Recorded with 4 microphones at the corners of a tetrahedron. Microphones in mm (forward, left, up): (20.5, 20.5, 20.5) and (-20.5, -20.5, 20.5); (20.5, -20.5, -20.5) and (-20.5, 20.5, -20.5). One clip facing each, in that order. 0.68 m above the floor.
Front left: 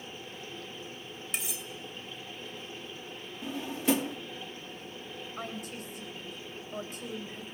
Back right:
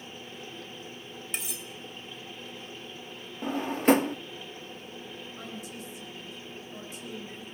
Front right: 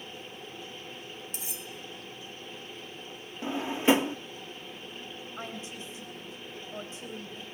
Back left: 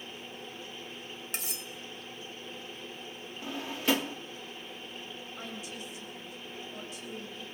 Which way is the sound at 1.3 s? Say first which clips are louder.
Even, back left 2 dB; 135° left.